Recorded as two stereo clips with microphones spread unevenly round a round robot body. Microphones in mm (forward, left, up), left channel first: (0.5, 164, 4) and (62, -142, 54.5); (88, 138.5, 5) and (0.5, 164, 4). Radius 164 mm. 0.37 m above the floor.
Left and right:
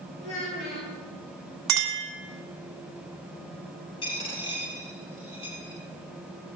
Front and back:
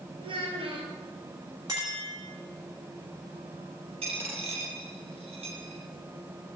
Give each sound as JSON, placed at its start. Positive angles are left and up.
{"t": 0.2, "sound": "a child speaking", "azimuth_deg": 145, "distance_m": 5.5}
{"t": 1.7, "sound": "a clink", "azimuth_deg": -120, "distance_m": 1.9}
{"t": 4.0, "sound": "a dropped coin", "azimuth_deg": 175, "distance_m": 2.5}